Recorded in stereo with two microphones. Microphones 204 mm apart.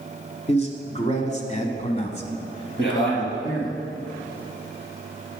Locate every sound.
0.5 s a man speaking: 30° left (ahead or behind), 1.7 m; by 3.8 s 15° left (ahead or behind), 1.5 m
2.8 s a man speaking: 55° left (ahead or behind), 3.5 m